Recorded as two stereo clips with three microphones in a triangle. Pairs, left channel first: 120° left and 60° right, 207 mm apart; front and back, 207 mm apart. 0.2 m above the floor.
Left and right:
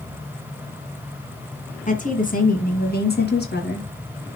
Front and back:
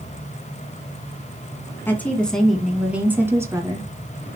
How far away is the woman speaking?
About 2.5 m.